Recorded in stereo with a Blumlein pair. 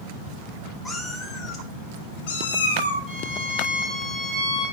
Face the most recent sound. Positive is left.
turn(degrees=5)